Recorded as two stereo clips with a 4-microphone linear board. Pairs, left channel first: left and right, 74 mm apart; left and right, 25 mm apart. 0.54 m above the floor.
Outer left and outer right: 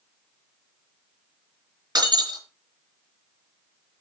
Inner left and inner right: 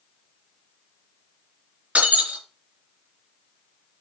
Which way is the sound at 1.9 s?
65° right (ahead or behind).